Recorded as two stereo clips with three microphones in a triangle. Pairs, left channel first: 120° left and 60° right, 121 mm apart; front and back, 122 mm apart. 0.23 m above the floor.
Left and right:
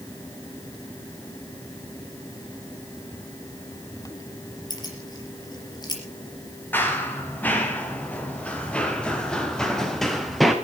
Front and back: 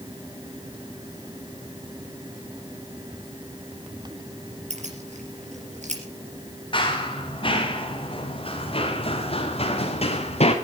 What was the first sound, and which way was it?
Keys jangling, 175° left.